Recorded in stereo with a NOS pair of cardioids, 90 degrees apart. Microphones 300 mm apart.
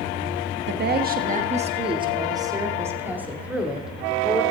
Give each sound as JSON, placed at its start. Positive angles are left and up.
{"t": 0.7, "sound": "a woman speaking", "azimuth_deg": -35, "distance_m": 1.3}